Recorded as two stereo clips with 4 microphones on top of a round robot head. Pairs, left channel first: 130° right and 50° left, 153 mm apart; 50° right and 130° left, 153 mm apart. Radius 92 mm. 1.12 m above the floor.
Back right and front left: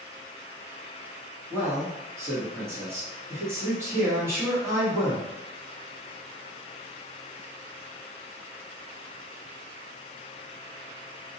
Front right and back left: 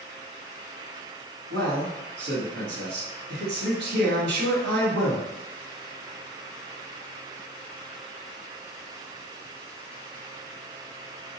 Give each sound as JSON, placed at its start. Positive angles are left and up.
{"t": 1.5, "sound": "a man speaking", "azimuth_deg": 125, "distance_m": 1.2}